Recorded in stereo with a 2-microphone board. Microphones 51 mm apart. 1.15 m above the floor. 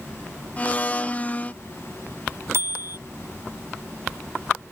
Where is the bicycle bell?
60° right (ahead or behind).